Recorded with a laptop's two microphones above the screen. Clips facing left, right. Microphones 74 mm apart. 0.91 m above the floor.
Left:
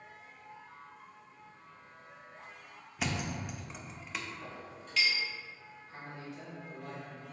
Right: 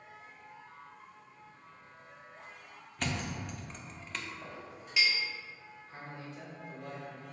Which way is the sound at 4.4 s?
15° right (ahead or behind).